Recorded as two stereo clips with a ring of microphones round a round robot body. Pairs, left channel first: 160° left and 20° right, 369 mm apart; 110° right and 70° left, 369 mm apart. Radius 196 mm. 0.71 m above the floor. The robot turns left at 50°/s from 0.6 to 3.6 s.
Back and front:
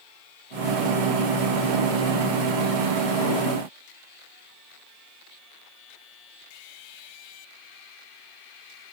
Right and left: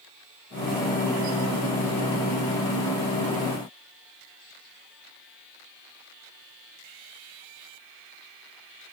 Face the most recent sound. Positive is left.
No sound to turn to.